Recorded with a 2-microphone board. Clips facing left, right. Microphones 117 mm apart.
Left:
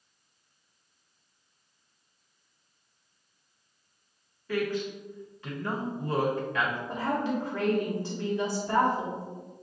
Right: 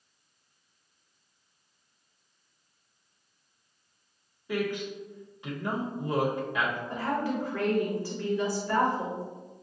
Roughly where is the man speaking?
Centre.